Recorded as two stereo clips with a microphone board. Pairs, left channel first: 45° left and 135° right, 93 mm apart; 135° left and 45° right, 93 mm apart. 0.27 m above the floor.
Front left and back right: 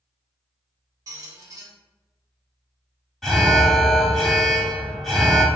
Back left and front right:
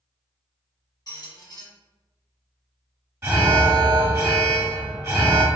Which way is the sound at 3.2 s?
30° right.